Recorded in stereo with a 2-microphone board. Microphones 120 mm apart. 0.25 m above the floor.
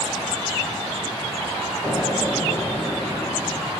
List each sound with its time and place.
1.8 s an explosion: centre (ahead or behind), 8 m